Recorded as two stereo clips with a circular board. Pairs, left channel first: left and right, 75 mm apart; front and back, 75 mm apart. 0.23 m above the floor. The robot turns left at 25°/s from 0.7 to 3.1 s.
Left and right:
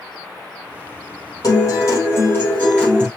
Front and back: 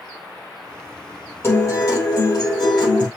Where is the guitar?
55° left, 4.5 m; by 3.1 s 10° left, 4.5 m.